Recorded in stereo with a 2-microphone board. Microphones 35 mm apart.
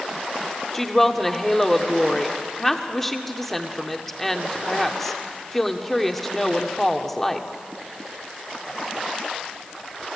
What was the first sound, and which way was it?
A woman speaking, 5° left (ahead or behind).